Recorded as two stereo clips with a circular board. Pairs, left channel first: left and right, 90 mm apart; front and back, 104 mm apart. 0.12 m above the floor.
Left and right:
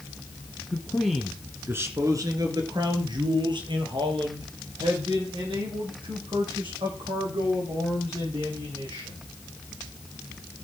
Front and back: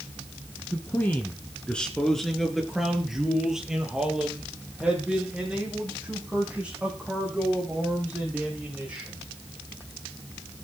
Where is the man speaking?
35° left, 1.8 m; by 9.2 s 100° right, 10.5 m.